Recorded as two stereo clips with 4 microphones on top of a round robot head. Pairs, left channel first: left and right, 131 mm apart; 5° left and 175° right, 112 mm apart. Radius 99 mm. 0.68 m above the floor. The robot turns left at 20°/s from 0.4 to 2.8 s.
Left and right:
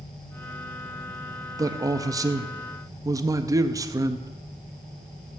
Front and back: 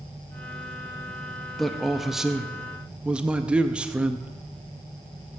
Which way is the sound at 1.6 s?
80° right.